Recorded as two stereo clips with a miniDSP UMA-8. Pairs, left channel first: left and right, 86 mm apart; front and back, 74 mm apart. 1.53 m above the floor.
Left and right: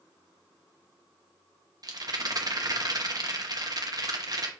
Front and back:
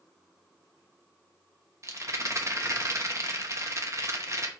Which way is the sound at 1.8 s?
130° right.